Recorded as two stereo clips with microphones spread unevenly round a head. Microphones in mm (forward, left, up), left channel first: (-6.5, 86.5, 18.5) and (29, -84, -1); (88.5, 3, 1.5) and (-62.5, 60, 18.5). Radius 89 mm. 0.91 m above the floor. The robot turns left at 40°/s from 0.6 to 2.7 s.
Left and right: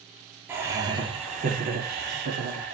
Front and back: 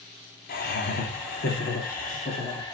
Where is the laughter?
Straight ahead, 2.5 m; by 2.7 s 85° right, 2.5 m.